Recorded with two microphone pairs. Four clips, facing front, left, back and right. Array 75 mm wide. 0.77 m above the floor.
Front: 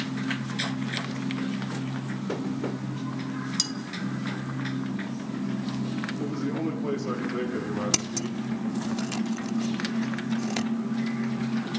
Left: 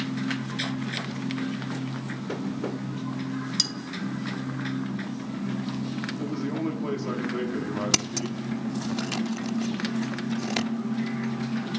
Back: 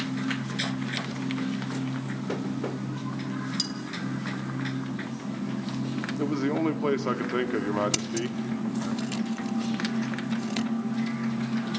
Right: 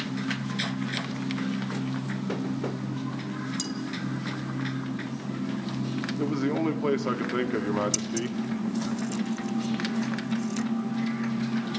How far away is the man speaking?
About 1.6 m.